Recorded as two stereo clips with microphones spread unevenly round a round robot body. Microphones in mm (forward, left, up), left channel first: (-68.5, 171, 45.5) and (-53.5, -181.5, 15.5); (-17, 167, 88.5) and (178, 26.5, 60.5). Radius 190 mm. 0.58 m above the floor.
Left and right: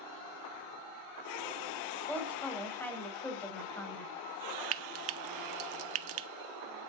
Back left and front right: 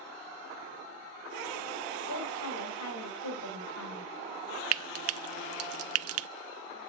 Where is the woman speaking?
Straight behind, 3 m.